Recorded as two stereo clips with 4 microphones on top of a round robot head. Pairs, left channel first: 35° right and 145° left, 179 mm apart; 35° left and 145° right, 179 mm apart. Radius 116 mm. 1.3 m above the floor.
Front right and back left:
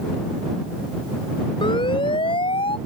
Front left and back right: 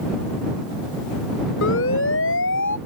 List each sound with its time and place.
1.6 s a siren: 30° left